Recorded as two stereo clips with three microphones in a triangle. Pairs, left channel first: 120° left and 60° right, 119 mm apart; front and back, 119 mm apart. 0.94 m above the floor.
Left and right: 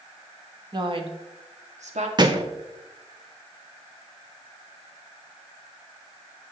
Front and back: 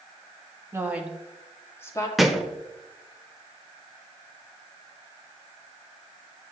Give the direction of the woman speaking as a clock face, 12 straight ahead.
4 o'clock.